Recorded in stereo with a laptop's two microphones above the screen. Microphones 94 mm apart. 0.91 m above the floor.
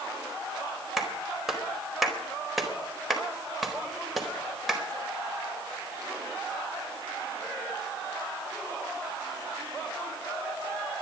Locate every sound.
1.0 s a clap: centre (ahead or behind), 4 m